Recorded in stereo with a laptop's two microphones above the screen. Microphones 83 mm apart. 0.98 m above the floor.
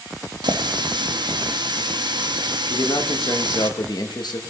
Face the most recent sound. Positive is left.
turn(degrees=60)  # may be behind; listen again after turning